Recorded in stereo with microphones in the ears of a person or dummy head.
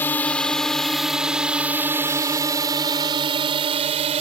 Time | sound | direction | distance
0.0 | a drone | 10° left (ahead or behind) | ?